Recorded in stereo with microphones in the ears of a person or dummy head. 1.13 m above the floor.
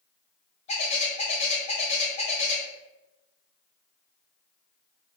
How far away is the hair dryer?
No hair dryer in this recording.